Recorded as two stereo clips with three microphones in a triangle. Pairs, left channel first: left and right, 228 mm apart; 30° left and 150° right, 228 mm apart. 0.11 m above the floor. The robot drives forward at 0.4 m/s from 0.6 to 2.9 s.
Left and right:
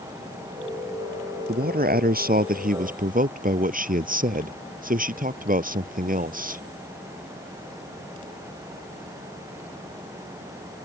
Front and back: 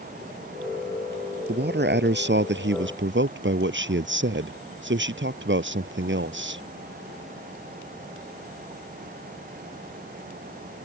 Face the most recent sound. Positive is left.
turn(degrees=-135)